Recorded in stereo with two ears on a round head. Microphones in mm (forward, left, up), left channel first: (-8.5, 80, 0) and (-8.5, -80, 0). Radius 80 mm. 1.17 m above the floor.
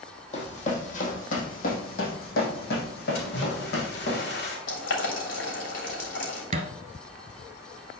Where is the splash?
60° left (ahead or behind), 3 m.